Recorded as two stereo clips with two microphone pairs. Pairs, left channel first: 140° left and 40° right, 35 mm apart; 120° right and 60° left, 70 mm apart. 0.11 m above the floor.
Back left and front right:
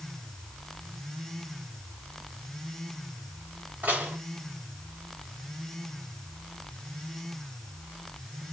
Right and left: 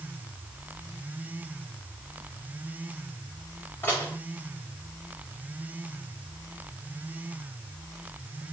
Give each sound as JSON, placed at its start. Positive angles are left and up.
{"t": 3.8, "sound": "dishes clattering", "azimuth_deg": -65, "distance_m": 7.0}